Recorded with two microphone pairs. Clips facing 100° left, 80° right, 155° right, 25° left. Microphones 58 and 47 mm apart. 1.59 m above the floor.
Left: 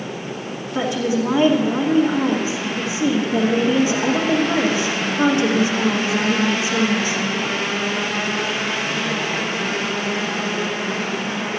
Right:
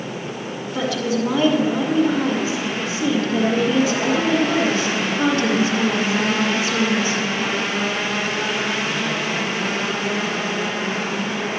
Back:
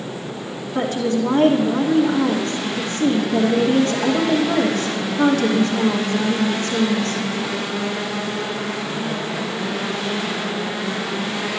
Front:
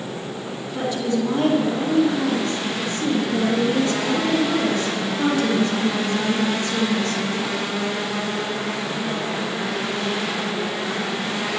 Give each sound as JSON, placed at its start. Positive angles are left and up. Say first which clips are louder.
{"t": 0.8, "sound": "a woman speaking", "louder": "left 2 dB, back 2 dB", "azimuth_deg": 165, "distance_m": 2.5}